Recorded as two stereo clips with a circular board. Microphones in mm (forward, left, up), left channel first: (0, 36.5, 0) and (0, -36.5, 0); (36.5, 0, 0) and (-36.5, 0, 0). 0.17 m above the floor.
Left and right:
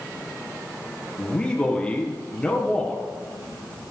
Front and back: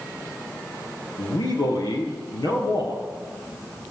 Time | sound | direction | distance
1.2 | a man speaking | 15° left | 4 m